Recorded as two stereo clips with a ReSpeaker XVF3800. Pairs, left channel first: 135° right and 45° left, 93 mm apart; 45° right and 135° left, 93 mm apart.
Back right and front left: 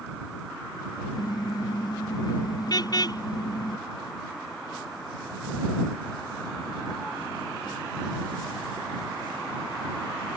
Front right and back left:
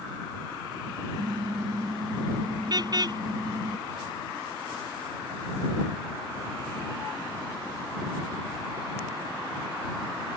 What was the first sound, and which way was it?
A car horn, straight behind.